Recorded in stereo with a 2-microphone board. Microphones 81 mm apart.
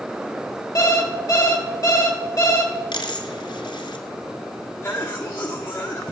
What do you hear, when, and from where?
0.8 s an alarm clock: 40° left (ahead or behind), 1.4 m
2.9 s a dropped coin: 80° left, 1.7 m
4.8 s a cough: 30° left (ahead or behind), 1.2 m